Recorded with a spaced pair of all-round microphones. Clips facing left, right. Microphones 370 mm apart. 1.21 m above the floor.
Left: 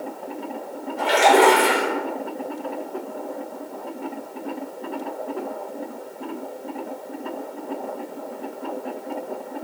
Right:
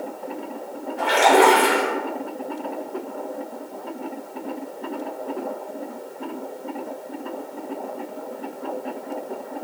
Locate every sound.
1.0 s a splash: 5° left (ahead or behind), 3.5 m